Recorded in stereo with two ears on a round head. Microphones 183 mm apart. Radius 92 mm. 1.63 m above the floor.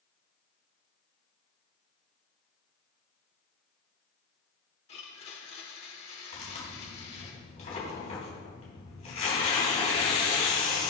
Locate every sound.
4.9 s a blender: 30° left (ahead or behind), 1.3 m
6.3 s tearing paper: 35° left (ahead or behind), 3.5 m